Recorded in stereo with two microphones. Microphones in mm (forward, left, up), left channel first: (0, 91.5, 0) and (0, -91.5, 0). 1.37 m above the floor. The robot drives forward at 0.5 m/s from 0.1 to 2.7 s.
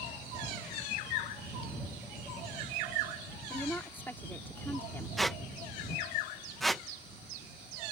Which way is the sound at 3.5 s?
10° left (ahead or behind).